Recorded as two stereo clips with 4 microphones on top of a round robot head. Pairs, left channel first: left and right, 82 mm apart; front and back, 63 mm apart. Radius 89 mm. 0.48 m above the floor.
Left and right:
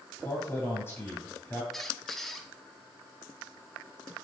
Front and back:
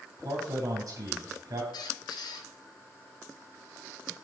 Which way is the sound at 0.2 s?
155° left.